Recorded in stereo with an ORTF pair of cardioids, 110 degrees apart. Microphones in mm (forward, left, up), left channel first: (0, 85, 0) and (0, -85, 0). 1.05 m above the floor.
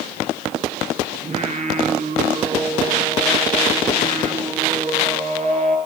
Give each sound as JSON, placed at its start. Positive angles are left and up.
{"t": 1.2, "sound": "singing", "azimuth_deg": -35, "distance_m": 7.0}